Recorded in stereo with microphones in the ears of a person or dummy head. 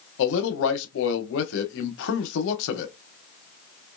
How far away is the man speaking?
About 0.8 m.